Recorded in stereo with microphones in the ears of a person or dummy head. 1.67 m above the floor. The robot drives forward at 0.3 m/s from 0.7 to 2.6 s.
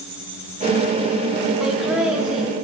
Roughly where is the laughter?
Centre.